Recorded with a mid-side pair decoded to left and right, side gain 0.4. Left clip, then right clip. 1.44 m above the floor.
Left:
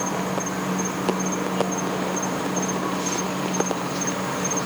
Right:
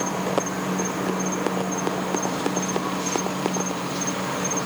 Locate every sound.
0.0 s an insect: straight ahead